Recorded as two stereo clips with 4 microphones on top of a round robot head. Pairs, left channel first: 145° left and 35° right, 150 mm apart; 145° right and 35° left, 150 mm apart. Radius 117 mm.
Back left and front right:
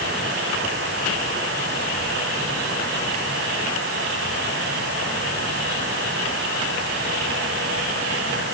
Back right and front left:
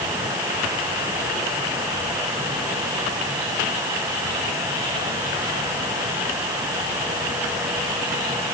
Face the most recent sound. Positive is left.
No sound to turn to.